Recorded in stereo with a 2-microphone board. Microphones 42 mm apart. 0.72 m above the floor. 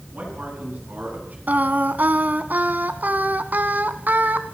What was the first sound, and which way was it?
A man speaking, 45° right (ahead or behind).